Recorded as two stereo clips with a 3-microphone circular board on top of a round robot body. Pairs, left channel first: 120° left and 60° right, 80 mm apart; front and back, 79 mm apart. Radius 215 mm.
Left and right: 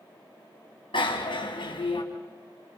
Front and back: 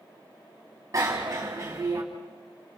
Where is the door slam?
I don't hear a door slam.